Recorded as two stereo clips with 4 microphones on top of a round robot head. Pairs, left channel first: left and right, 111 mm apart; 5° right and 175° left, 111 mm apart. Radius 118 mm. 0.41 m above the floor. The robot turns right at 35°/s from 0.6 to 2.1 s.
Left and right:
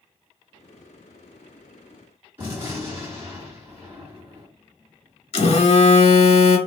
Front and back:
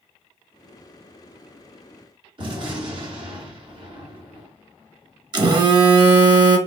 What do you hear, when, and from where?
2.4 s a gunshot: 155° right, 1.9 m
5.3 s a phone buzzing: 125° left, 0.7 m